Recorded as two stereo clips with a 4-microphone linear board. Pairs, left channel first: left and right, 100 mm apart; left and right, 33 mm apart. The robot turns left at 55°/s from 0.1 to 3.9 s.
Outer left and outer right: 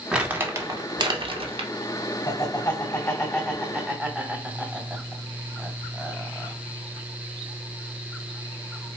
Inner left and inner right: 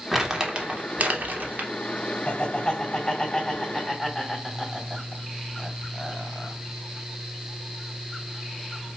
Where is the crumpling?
5° right (ahead or behind), 0.8 m; by 1.7 s 60° right (ahead or behind), 0.8 m.